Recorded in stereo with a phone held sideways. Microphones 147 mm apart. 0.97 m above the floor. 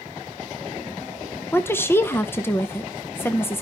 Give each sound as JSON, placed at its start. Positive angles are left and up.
{"t": 1.5, "sound": "a woman speaking", "side_deg": 15, "distance_m": 0.5}